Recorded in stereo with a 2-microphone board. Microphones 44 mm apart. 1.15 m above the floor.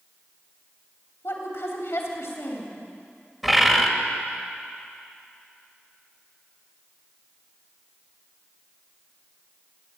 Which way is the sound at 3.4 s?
Centre (ahead or behind).